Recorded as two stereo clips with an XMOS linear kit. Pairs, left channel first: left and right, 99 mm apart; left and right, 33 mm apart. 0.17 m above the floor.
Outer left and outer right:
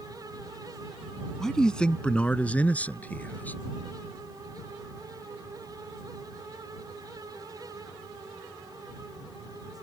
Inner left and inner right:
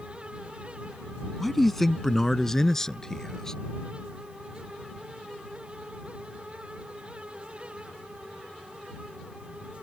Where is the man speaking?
5° left (ahead or behind); by 3.6 s 20° left (ahead or behind).